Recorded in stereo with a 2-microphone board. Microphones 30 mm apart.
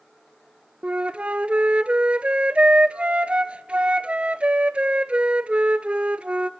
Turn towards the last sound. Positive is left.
turn(degrees=-40)  # may be behind; listen again after turning